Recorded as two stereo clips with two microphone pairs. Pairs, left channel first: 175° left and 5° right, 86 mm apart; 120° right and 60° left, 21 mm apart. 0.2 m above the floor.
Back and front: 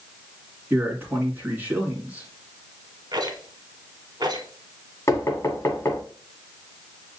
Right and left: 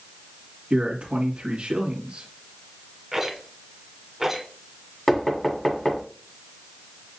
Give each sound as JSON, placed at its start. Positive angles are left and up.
{"t": 0.7, "sound": "a man speaking", "azimuth_deg": 55, "distance_m": 2.0}
{"t": 3.1, "sound": "a rattle", "azimuth_deg": -10, "distance_m": 1.4}
{"t": 5.1, "sound": "knocking", "azimuth_deg": -170, "distance_m": 1.3}